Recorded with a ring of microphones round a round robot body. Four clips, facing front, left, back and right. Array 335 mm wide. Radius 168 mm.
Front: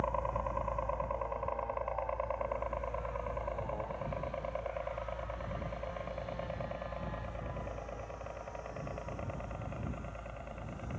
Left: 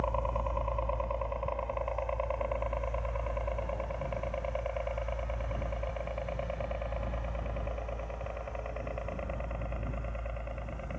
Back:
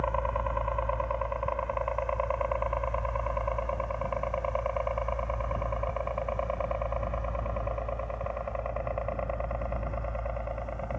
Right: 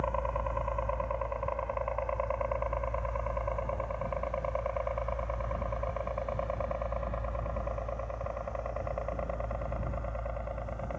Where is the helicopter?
160° right; by 11.0 s 155° right.